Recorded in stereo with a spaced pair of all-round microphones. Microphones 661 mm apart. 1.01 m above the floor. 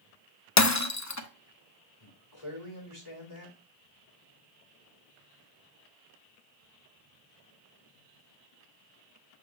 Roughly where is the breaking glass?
Left.